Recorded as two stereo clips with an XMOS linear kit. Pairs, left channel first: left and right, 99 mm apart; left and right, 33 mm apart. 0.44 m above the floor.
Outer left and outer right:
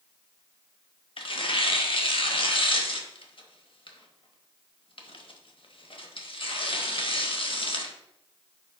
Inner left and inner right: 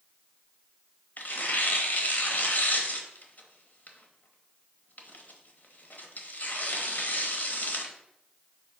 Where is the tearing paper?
60° left (ahead or behind), 0.9 m.